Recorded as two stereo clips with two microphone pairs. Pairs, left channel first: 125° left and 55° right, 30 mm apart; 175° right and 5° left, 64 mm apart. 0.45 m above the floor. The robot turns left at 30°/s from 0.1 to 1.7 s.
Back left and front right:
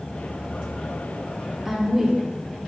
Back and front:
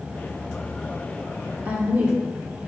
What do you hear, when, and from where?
1.6 s a woman speaking: 15° right, 1.2 m